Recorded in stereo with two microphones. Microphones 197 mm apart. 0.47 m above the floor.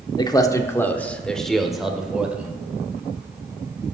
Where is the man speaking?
20° left (ahead or behind), 0.8 m; by 2.5 s 5° right (ahead or behind), 1.5 m.